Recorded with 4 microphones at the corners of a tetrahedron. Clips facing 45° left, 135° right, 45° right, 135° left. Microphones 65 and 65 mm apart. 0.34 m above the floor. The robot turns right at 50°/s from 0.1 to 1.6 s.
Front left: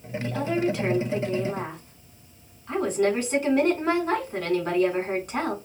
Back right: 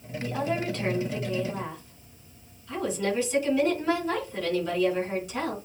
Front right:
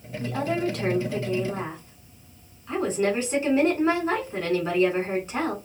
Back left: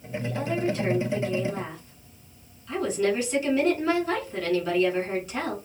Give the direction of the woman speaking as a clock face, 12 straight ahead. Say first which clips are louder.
Front left 3 dB, front right 2 dB; 2 o'clock.